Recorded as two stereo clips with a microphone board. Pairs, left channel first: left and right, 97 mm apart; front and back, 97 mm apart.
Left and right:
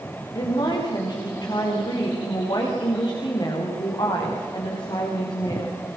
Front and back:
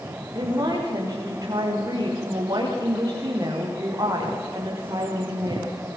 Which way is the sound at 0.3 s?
135° left.